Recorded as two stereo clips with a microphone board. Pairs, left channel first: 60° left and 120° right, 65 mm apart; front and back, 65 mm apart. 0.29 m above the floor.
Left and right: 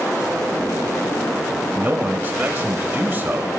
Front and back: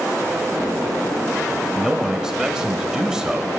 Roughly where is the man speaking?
Right.